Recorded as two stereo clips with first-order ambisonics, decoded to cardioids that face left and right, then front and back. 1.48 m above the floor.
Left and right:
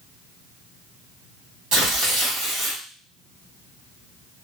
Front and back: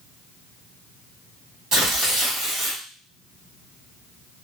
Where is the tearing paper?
130° right, 1.9 m.